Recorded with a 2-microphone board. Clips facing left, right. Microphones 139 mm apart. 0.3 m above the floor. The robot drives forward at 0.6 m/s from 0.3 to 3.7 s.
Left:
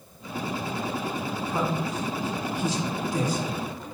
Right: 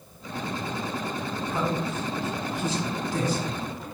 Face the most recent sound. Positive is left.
turn(degrees=10)  # may be behind; listen again after turning